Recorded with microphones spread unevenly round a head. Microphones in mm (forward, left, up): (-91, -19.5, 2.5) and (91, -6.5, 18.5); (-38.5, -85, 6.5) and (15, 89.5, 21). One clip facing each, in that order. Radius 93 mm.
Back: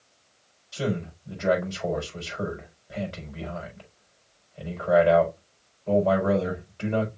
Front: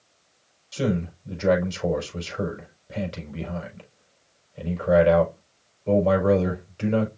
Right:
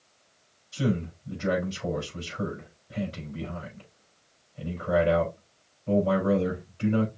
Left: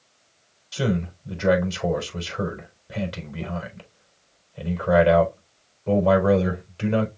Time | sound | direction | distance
0.7 | a man speaking | 55° left | 5 m